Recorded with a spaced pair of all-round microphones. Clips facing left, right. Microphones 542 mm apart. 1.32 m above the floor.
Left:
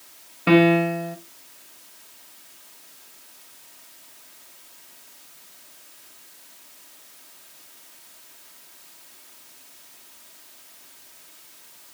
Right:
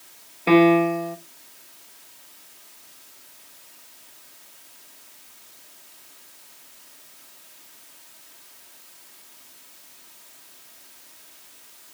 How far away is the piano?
About 0.6 m.